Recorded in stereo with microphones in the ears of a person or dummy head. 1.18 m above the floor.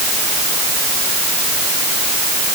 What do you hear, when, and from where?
Only background noise.